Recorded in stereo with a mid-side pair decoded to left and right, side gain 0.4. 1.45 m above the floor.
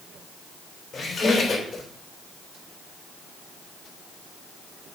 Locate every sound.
0.9 s a squeak: 45° left, 2.5 m